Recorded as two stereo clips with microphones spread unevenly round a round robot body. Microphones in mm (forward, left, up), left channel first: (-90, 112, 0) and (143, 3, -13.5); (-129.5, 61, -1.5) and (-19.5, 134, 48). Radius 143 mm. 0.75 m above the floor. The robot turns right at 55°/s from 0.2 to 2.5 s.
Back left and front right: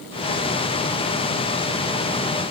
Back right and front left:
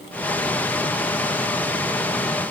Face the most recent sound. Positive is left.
No sound to turn to.